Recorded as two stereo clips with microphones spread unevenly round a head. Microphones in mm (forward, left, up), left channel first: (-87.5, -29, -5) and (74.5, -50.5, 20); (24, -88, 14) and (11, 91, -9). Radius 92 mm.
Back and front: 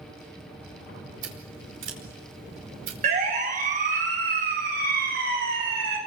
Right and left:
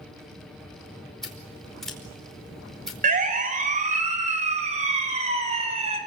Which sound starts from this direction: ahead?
Scissors, at 1.2 s.